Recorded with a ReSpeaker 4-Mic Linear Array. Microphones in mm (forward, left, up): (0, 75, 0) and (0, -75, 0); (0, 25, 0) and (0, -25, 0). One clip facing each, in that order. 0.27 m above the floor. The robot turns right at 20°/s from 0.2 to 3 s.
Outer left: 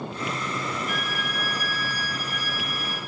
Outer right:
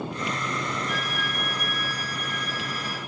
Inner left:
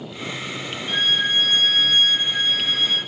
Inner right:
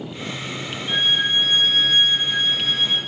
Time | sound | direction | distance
0.9 | a violin | 150° right | 4 m